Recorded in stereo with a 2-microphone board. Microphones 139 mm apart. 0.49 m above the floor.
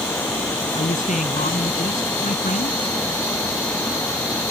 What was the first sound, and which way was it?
A man speaking, 65° left (ahead or behind).